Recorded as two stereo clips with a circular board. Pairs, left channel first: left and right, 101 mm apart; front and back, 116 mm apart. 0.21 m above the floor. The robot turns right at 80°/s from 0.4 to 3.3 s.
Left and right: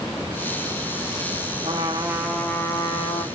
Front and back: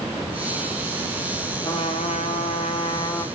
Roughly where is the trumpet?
Ahead right.